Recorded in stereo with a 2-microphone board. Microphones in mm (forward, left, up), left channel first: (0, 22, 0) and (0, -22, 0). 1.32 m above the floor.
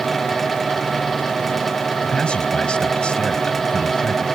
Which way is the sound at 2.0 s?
25° left (ahead or behind).